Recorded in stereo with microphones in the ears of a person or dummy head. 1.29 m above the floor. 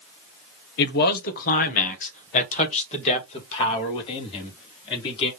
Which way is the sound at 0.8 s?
60° left (ahead or behind).